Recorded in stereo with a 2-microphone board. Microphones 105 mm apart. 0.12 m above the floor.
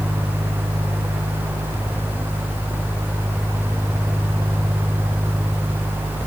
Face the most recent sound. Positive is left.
No sound to turn to.